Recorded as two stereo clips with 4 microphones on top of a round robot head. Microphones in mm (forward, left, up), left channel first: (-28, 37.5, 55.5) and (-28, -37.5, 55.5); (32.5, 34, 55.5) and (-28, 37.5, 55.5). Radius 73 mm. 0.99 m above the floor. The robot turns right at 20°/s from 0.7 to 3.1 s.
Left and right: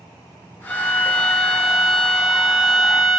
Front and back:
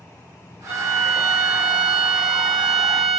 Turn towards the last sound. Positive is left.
turn(degrees=-165)